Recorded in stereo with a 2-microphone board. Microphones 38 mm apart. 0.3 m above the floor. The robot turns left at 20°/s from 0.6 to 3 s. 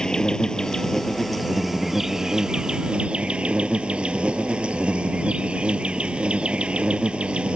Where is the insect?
20° left; by 7.6 s 30° right.